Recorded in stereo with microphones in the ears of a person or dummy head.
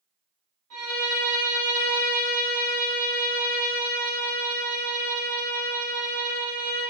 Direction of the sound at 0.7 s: 85° right.